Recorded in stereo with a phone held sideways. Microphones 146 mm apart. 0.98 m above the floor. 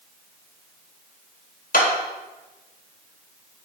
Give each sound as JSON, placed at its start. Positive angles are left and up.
{"t": 1.7, "sound": "a clap", "side_deg": 70, "distance_m": 3.5}